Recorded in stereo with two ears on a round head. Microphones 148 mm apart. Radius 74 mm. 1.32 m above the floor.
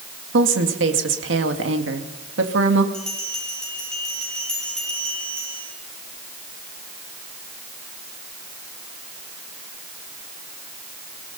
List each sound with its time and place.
0.3 s a woman speaking: 85° right, 2 m
2.9 s a bell: 5° left (ahead or behind), 8.5 m